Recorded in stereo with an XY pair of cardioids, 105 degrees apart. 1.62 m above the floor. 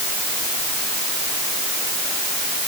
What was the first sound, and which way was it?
Only background noise.